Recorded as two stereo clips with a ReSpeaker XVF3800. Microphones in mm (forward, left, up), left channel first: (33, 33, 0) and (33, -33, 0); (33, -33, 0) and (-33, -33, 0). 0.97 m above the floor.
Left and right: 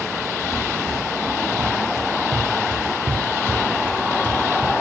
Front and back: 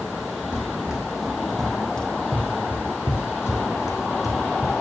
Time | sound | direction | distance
0.5 | running footsteps | 105° right | 3.5 m